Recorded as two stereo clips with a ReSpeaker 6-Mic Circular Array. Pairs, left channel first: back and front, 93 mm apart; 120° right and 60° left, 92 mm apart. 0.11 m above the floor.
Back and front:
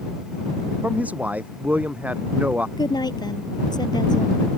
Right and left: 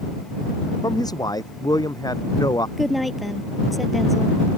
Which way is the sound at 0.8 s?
75° right.